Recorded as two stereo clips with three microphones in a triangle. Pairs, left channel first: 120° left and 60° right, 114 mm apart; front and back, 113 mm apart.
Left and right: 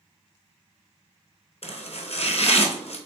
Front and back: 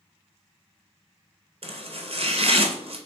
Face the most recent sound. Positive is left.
turn(degrees=150)